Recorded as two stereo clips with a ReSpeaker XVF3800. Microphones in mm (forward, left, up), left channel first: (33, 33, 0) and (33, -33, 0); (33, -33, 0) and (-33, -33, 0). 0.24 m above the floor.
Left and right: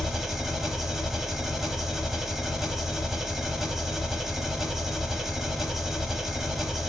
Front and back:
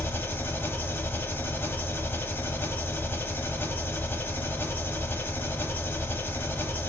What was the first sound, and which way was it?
An engine running, 10° right.